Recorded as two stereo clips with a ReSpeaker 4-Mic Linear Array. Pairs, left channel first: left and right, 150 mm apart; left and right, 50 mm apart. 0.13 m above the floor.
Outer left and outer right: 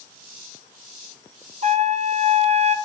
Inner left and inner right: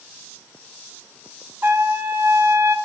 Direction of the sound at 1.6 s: 50° right (ahead or behind).